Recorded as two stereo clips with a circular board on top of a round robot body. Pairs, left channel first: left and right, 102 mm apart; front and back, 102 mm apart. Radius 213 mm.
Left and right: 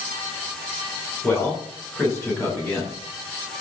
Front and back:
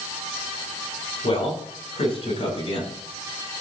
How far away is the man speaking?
About 10 m.